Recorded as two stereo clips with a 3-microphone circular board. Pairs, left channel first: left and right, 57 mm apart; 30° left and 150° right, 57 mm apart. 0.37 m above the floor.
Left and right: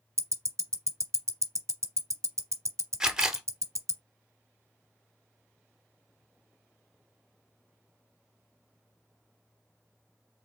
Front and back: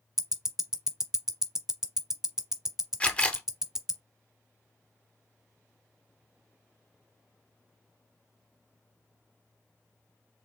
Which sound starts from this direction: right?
Ticking, at 0.2 s.